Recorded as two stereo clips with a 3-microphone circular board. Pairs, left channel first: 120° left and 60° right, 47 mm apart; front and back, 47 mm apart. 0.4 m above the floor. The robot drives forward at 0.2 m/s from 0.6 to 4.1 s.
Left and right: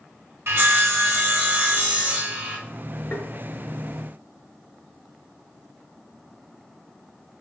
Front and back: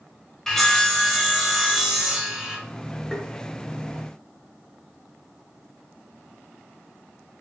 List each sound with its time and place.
0.5 s sawing: 80° right, 0.7 m; by 2.6 s 110° right, 0.8 m
3.1 s tapping: 85° left, 0.6 m; by 3.3 s 90° left, 0.6 m